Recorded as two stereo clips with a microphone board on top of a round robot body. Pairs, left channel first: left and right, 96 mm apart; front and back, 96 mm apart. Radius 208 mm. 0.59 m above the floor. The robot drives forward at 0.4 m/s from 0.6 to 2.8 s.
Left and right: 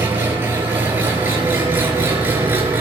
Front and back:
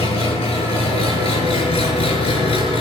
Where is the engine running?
20° right, 7.5 m.